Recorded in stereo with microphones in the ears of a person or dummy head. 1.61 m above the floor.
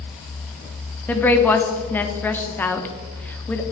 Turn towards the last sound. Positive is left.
turn(degrees=5)  # may be behind; listen again after turning